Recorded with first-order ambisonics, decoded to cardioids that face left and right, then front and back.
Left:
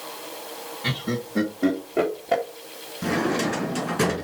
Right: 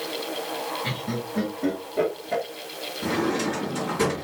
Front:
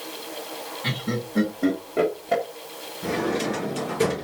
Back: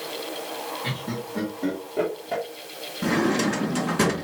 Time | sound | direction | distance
0.8 | laughter | 65° left | 1.1 m
3.0 | a drawer | 150° left | 2.5 m